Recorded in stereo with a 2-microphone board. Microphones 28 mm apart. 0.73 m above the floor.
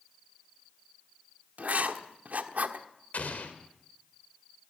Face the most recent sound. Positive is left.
turn(degrees=70)  # may be behind; listen again after turning